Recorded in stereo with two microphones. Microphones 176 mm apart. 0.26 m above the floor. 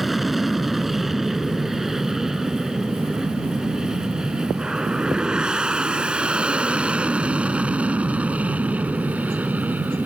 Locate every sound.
0.0 s an aircraft: centre (ahead or behind); by 10.1 s 10° right (ahead or behind)